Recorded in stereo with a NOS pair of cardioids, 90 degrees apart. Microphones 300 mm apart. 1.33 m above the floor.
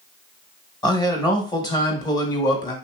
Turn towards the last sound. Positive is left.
turn(degrees=15)